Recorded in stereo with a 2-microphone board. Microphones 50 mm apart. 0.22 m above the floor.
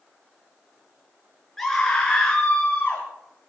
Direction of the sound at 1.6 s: 5° left (ahead or behind).